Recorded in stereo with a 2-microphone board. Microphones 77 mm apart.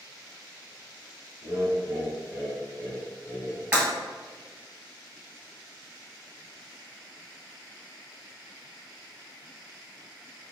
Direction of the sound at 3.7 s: 20° right (ahead or behind).